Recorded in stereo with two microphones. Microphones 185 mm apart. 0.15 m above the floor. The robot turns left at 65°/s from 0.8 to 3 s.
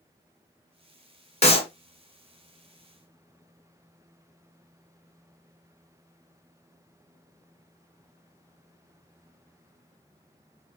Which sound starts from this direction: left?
A clap, at 1.4 s.